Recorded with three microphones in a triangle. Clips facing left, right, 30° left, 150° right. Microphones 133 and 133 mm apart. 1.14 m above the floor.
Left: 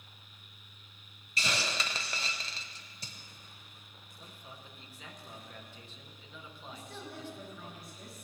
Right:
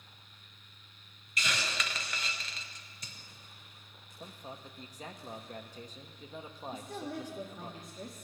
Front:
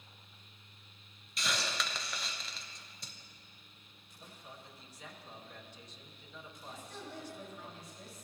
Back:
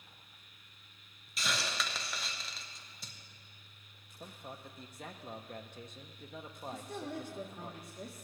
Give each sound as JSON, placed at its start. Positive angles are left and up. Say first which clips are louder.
{"t": 1.4, "sound": "a hiss", "louder": "left 1 dB, even", "azimuth_deg": 120, "distance_m": 0.8}
{"t": 4.2, "sound": "a man speaking", "louder": "right 6 dB, back 5 dB", "azimuth_deg": -130, "distance_m": 0.9}
{"t": 6.7, "sound": "a woman speaking", "louder": "right 6 dB, back 6 dB", "azimuth_deg": -130, "distance_m": 1.2}